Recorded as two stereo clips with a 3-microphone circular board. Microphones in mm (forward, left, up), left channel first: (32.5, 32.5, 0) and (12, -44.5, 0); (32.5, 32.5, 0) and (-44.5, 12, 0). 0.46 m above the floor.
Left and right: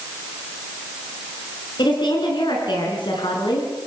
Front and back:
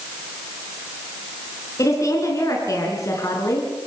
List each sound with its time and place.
1.8 s a woman speaking: 60° left, 5 m